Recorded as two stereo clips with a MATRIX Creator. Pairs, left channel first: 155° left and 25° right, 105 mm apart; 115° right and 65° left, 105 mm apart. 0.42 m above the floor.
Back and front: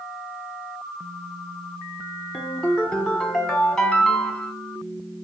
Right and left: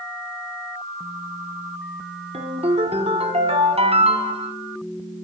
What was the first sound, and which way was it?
A ringtone, 75° left.